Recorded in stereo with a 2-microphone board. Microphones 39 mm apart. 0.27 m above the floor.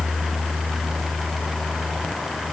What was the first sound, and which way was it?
Only background noise.